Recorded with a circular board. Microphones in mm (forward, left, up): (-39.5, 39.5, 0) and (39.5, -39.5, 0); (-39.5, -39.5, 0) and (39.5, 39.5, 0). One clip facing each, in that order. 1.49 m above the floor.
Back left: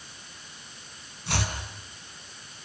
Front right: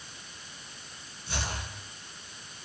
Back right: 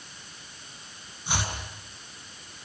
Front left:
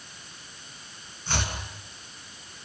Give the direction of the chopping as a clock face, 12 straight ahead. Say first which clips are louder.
Back left 5 dB, even; 7 o'clock.